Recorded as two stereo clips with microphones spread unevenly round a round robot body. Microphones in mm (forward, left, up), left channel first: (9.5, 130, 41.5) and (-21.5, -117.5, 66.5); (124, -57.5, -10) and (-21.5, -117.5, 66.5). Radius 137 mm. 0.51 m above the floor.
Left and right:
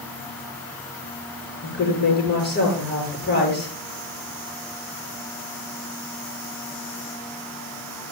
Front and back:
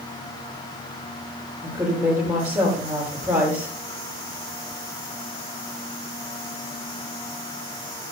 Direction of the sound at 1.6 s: 135° left.